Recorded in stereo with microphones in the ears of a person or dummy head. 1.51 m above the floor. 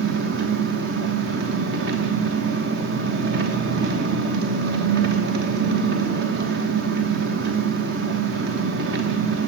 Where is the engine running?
55° right (ahead or behind), 1.0 m.